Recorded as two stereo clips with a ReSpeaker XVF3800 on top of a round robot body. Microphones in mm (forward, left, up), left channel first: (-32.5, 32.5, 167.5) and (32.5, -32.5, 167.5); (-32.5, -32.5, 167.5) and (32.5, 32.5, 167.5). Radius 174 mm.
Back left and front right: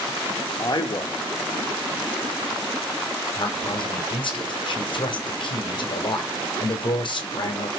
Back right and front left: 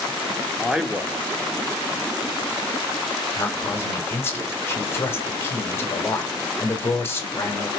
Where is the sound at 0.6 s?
125° left, 1.3 m.